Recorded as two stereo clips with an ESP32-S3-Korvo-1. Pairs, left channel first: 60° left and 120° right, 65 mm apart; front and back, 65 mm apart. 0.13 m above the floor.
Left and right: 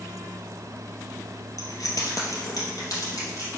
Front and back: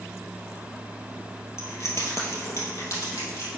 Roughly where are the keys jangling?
Ahead left.